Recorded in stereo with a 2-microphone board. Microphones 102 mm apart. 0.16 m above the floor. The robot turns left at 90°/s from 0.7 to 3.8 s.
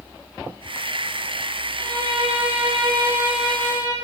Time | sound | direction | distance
1.8 | a violin | 30° right | 6.5 m